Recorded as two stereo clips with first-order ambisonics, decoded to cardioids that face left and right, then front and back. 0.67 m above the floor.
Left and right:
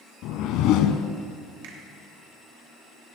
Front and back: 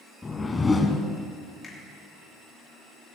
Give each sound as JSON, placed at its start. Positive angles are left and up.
{"t": 0.2, "sound": "a whoosh", "azimuth_deg": 80, "distance_m": 0.9}
{"t": 1.6, "sound": "a finger snap", "azimuth_deg": -75, "distance_m": 2.5}